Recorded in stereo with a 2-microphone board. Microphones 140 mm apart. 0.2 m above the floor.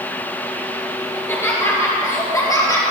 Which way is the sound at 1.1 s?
15° left (ahead or behind).